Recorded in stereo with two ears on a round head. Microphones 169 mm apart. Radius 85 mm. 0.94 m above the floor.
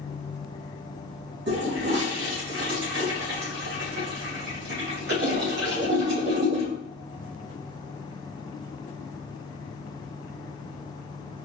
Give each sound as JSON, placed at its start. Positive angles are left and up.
{"t": 1.5, "sound": "a toilet flushing", "side_deg": -65, "distance_m": 2.5}